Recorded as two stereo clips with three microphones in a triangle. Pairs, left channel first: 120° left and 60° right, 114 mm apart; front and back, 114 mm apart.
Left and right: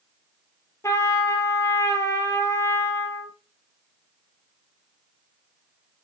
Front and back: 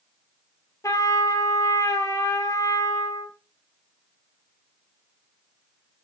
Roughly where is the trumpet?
Ahead left.